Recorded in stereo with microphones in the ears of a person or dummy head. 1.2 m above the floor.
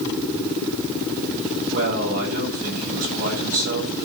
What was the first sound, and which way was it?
A man speaking, 50° right (ahead or behind).